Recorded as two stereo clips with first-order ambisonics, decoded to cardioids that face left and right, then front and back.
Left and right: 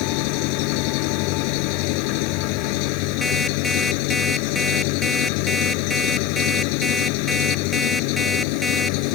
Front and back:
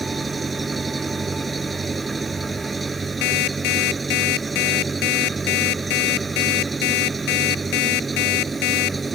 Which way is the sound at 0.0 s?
100° left.